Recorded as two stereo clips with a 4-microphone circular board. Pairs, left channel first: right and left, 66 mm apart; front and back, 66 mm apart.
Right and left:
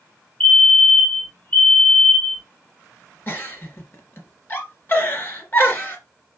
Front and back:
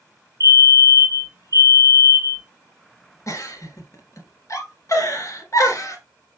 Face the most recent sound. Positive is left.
turn(degrees=-35)